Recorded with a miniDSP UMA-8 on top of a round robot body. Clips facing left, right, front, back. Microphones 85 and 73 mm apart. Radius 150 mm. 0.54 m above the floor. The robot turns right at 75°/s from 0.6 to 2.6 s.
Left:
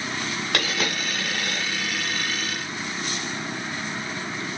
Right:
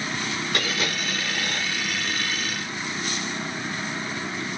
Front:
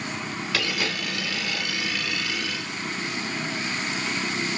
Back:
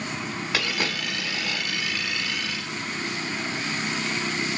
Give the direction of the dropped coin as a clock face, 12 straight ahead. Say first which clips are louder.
Left 2 dB, even; 8 o'clock.